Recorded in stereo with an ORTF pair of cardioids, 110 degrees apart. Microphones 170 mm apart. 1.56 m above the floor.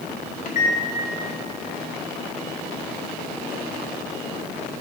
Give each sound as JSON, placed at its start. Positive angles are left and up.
{"t": 0.5, "sound": "a microwave", "azimuth_deg": 45, "distance_m": 1.2}